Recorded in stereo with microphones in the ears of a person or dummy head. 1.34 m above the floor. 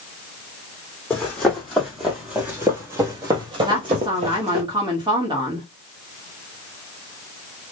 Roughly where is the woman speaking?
Centre.